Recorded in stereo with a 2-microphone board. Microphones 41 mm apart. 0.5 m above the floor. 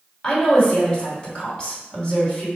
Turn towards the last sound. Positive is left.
turn(degrees=15)  # may be behind; listen again after turning